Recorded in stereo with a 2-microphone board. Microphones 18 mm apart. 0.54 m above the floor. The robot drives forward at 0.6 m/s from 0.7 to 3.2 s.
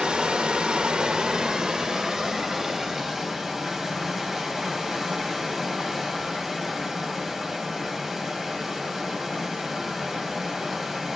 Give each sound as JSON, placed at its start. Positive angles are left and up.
{"t": 0.0, "sound": "running water", "side_deg": -60, "distance_m": 0.9}